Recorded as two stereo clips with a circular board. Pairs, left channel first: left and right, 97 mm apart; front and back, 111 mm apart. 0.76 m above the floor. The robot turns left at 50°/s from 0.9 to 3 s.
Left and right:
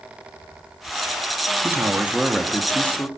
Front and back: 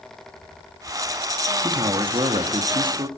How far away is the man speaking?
About 1.3 m.